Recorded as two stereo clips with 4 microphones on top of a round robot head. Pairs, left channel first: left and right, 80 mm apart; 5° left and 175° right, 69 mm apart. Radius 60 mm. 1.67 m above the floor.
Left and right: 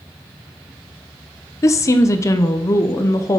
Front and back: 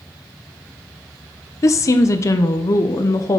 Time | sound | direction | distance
1.6 | a woman speaking | 40° left | 0.7 m